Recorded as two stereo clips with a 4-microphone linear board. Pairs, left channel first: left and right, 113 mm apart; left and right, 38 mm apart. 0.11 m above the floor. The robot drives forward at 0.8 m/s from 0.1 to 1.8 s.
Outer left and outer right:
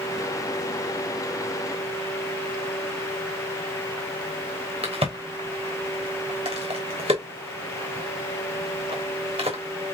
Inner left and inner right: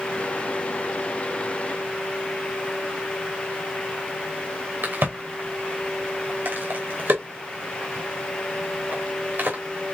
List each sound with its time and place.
4.8 s a crack: 65° right (ahead or behind), 2.5 m